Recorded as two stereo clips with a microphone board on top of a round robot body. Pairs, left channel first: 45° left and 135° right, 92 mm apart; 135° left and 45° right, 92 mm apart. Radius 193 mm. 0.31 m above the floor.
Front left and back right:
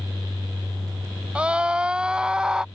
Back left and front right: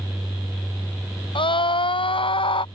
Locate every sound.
1.4 s a scream: 145° left